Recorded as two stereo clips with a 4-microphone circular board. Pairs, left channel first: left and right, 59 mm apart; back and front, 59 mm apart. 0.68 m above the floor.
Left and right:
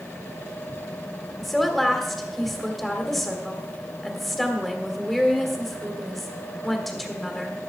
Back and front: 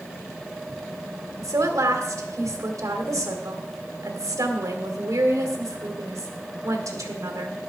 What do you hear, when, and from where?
1.4 s a woman speaking: straight ahead, 2 m